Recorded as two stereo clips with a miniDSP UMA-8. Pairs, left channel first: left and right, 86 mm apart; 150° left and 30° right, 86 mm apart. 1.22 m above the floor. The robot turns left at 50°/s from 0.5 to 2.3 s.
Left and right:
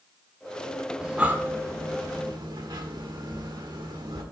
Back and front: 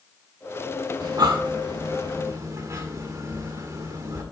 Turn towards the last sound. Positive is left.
turn(degrees=-75)